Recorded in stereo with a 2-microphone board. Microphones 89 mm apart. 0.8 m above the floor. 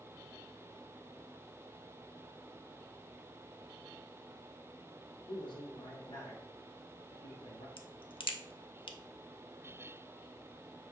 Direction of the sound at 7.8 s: 70° left (ahead or behind).